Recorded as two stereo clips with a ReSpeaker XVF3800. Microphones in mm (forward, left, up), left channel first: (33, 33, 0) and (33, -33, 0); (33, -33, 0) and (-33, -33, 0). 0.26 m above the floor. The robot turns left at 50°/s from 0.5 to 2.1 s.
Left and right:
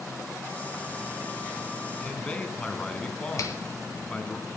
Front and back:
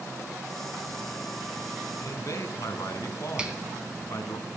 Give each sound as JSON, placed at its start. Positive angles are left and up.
{"t": 2.0, "sound": "a man speaking", "azimuth_deg": 20, "distance_m": 1.9}
{"t": 3.4, "sound": "a finger snap", "azimuth_deg": 105, "distance_m": 1.5}